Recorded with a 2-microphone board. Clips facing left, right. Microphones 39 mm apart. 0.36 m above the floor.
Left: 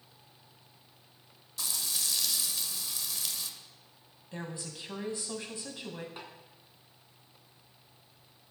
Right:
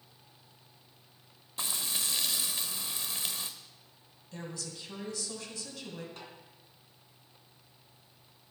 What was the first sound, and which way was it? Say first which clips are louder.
Frying: right 1 dB; 30° right (ahead or behind).